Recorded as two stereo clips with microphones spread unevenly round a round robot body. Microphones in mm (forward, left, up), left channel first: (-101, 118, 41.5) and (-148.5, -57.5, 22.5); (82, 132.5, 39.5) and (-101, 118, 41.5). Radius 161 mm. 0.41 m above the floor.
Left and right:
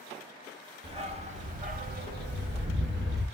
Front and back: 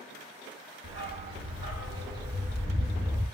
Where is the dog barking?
165° right, 1.3 m; by 3.3 s 105° right, 1.2 m.